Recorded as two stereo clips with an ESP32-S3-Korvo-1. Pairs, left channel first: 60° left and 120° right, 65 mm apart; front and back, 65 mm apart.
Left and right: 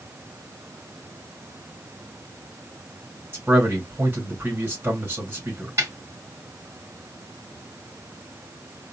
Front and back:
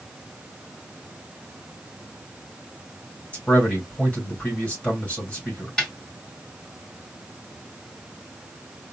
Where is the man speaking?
65° right, 2.5 m.